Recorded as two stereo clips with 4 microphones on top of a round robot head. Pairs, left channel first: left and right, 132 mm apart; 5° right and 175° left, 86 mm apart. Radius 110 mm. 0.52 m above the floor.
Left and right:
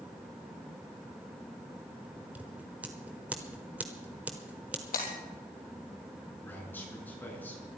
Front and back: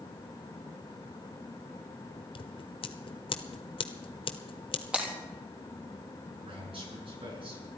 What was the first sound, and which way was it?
Scissors, 10° right.